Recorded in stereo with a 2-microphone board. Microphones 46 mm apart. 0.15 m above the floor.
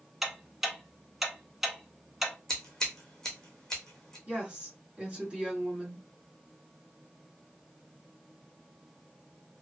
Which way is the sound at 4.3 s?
20° right (ahead or behind).